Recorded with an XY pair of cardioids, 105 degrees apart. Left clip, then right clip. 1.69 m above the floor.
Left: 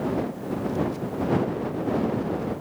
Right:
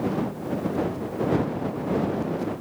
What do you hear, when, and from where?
Only background noise.